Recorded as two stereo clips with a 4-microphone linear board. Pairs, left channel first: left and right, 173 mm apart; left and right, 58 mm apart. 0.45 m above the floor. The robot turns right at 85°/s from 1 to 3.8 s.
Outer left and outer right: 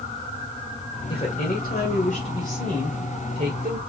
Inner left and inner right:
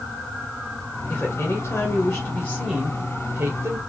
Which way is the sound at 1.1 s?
35° left.